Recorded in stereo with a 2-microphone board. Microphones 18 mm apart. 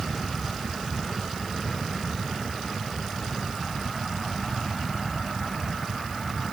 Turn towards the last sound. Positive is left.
No sound to turn to.